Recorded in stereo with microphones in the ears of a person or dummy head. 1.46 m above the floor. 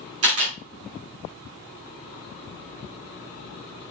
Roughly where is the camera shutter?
Right.